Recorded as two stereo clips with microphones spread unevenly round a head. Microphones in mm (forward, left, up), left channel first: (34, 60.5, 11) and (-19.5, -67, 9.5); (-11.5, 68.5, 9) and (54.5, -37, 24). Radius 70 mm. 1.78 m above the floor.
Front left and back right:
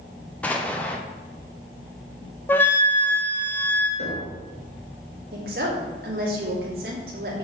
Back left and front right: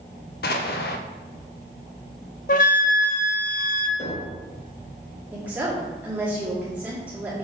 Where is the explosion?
150° left, 0.8 m.